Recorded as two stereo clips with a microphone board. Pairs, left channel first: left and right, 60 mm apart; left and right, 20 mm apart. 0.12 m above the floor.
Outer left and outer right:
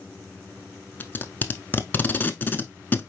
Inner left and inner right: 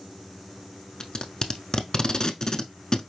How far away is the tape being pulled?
About 0.6 m.